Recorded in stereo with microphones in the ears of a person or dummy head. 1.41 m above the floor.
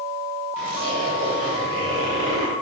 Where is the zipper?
65° right (ahead or behind), 3 m.